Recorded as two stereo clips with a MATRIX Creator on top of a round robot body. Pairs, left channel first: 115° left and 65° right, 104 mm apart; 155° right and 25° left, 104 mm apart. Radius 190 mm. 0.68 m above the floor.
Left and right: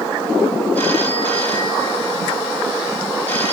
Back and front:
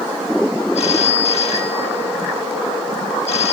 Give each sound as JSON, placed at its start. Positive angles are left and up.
{"t": 0.8, "sound": "a phone ringing", "azimuth_deg": -175, "distance_m": 4.0}